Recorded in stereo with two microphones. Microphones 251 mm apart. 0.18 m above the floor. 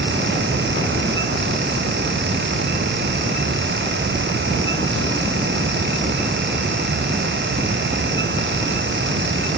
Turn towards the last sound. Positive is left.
No sound to turn to.